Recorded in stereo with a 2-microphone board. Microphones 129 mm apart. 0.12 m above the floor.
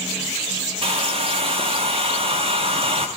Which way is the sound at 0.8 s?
50° right (ahead or behind).